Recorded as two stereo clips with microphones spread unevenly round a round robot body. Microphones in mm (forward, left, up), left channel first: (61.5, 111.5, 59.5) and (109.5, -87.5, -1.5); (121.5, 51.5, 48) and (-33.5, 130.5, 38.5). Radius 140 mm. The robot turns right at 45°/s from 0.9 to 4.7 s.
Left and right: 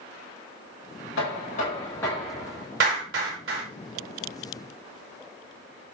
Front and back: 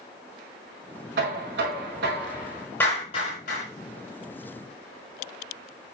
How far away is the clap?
About 7 m.